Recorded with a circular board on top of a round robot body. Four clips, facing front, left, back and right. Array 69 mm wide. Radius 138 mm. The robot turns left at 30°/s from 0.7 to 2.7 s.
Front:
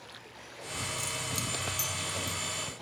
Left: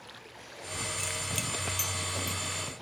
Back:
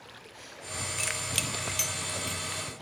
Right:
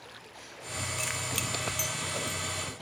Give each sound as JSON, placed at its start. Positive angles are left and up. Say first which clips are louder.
{"t": 1.0, "sound": "keys jangling", "louder": "right 2 dB, back 2 dB", "azimuth_deg": -160, "distance_m": 1.0}